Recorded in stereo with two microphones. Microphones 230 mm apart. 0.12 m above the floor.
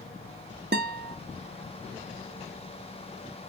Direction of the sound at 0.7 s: 45° right (ahead or behind).